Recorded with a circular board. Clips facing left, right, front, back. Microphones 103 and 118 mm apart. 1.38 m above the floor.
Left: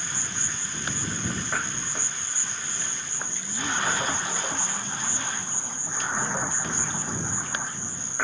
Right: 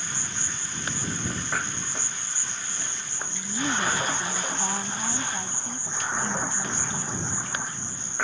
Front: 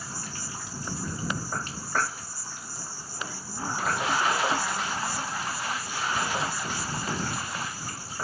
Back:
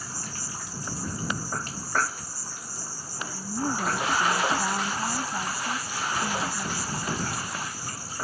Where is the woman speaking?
125° right.